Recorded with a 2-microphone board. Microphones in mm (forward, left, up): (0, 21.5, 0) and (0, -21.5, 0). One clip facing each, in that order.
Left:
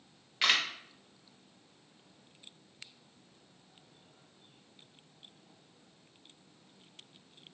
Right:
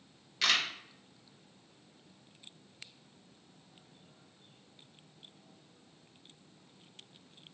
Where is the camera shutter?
20° left (ahead or behind), 0.6 m.